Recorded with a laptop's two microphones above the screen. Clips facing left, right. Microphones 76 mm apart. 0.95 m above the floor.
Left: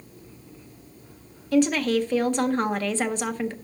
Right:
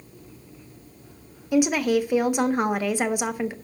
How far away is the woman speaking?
About 0.5 m.